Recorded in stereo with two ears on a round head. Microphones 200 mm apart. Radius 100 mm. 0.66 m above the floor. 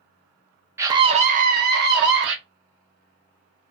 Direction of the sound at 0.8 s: 10° right (ahead or behind).